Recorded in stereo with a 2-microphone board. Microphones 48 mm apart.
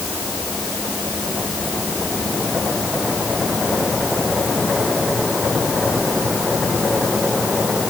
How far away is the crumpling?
No crumpling in this recording.